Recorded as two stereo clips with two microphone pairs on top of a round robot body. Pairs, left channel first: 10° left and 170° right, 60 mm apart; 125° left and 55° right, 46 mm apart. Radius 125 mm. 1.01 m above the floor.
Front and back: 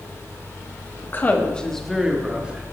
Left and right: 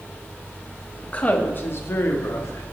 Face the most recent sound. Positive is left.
turn(degrees=120)